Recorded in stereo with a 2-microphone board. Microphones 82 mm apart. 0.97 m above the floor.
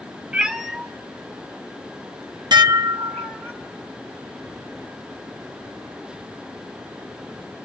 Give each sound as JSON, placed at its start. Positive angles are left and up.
{"t": 0.3, "sound": "a cat meowing", "side_deg": -15, "distance_m": 0.8}
{"t": 2.5, "sound": "dishes clattering", "side_deg": -60, "distance_m": 0.7}